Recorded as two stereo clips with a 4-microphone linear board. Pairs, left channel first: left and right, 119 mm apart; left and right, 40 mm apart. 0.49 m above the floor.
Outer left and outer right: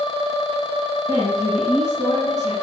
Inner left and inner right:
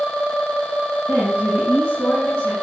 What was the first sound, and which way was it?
A woman speaking, 75° left (ahead or behind).